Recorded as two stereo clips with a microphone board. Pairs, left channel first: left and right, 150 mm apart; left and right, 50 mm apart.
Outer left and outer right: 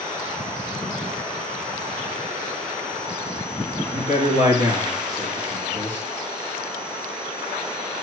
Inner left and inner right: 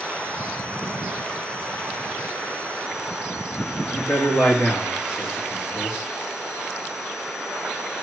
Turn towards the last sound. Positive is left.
turn(degrees=60)  # may be behind; listen again after turning